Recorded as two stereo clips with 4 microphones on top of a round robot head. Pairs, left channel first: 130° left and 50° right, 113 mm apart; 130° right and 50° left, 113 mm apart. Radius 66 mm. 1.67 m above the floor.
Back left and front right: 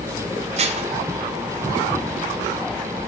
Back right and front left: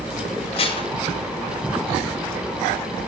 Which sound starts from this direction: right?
Dishes clattering, at 0.6 s.